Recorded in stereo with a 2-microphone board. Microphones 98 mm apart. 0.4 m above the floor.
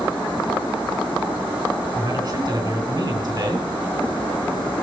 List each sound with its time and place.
1.9 s a man speaking: 50° right (ahead or behind), 4 m